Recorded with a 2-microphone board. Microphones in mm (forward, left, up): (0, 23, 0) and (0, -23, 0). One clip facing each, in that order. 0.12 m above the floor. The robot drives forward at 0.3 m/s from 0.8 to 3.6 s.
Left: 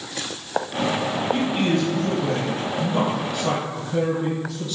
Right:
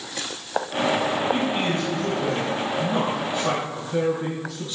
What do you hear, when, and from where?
1.3 s a man speaking: 25° right (ahead or behind), 1.2 m